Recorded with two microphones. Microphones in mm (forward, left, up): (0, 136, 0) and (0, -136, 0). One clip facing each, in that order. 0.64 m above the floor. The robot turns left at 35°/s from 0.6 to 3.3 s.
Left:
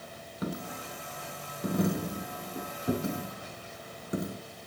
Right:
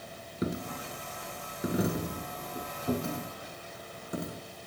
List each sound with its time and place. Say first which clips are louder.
0.4 s a dropped coin: right 3 dB; 25° right (ahead or behind), 0.6 m; by 4.4 s 20° left (ahead or behind), 0.6 m